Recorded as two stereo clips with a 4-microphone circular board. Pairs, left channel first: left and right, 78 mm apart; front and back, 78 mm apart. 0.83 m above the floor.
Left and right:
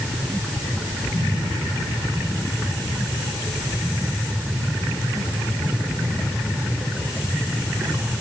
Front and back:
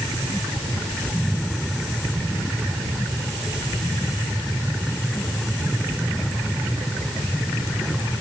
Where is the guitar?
No guitar in this recording.